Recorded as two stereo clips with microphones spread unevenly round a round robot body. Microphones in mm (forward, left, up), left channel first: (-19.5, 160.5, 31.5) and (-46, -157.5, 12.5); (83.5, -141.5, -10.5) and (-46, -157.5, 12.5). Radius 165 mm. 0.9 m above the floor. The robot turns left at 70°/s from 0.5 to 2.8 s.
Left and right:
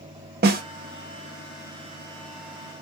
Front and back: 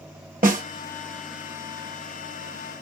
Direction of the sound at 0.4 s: 150° right.